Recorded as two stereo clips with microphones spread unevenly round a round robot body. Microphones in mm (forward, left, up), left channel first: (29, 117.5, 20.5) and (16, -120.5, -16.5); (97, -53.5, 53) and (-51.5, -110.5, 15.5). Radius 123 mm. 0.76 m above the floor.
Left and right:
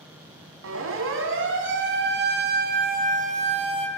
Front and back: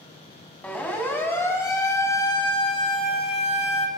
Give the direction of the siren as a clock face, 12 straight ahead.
2 o'clock.